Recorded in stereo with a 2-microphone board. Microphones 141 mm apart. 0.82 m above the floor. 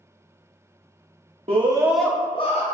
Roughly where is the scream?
Right.